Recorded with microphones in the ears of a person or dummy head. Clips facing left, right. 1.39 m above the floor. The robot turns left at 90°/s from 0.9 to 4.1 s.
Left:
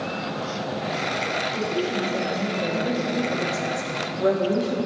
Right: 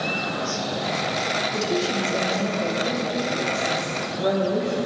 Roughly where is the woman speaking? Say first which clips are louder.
Right 1 dB; right.